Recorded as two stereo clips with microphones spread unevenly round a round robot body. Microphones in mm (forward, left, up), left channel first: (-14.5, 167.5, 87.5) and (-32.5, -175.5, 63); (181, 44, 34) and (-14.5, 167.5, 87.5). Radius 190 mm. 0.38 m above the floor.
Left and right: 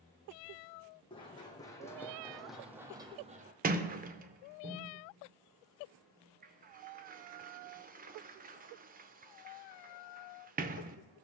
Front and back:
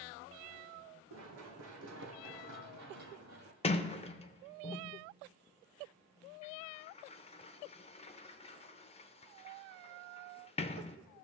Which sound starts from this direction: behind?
Running footsteps, at 1.1 s.